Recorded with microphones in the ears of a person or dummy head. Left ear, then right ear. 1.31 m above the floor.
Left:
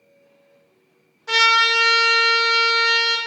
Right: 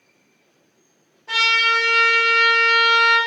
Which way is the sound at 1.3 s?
50° left (ahead or behind).